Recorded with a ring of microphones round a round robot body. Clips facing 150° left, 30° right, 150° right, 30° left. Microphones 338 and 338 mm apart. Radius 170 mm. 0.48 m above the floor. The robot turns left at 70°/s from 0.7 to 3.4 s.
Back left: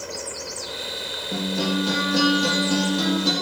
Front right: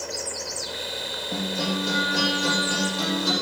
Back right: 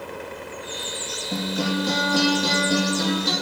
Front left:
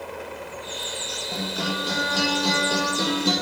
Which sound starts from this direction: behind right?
A guitar, at 1.3 s.